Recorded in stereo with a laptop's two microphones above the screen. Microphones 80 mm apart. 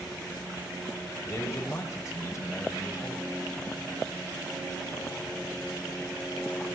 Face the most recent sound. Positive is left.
turn(degrees=40)  # may be behind; listen again after turning